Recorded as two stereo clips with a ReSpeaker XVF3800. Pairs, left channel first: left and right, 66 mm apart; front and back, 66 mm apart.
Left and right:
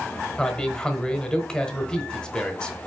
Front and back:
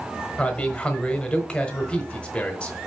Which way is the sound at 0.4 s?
40° left.